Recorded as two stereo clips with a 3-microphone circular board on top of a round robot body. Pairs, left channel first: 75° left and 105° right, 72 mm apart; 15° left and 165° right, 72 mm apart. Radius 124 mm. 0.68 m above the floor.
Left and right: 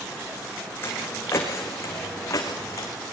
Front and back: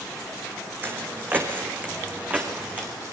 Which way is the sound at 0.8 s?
135° left.